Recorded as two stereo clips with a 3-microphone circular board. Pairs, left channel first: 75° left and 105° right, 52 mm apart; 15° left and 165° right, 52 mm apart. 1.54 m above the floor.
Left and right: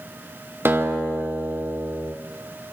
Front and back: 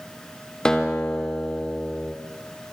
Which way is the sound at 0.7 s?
60° right.